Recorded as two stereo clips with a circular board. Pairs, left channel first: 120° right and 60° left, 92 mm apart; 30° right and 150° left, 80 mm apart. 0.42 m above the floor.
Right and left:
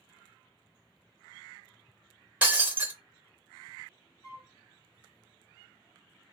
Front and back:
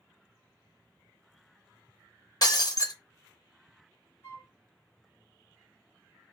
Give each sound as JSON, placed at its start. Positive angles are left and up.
{"t": 2.4, "sound": "breaking glass", "azimuth_deg": -5, "distance_m": 0.7}
{"t": 4.2, "sound": "a flute", "azimuth_deg": -80, "distance_m": 0.5}